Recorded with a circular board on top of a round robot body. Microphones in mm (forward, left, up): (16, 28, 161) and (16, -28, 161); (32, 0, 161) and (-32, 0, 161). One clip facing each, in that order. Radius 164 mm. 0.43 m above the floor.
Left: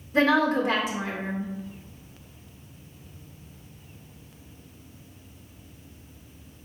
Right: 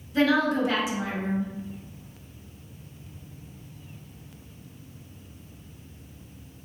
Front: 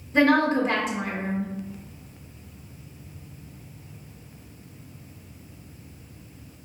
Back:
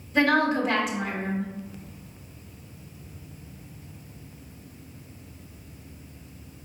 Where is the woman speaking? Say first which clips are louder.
Left 1 dB, front 2 dB; 55° left, 1.9 m.